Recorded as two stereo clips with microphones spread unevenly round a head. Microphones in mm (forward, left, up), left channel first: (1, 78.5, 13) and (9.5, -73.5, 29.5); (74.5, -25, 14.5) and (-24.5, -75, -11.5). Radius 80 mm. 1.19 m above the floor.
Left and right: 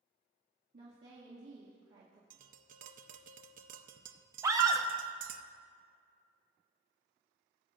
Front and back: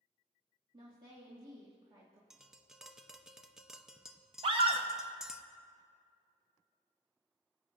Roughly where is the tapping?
Right.